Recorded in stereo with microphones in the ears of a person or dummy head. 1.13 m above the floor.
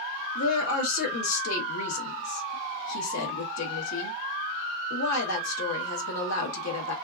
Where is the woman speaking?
80° left, 0.9 m.